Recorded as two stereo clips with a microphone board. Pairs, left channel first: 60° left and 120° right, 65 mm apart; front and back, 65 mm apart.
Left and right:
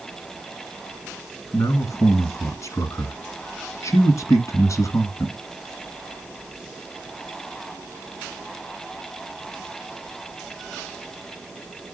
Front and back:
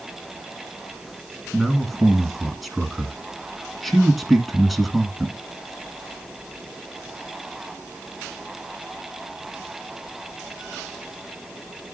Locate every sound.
1.5 s a man speaking: 90° left, 2 m